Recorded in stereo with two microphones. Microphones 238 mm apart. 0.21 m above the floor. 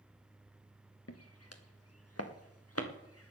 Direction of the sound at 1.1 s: 80° left.